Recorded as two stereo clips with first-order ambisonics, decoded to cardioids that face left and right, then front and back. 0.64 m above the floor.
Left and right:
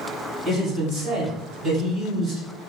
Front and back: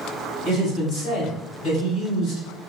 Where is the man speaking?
20° right, 1.8 m.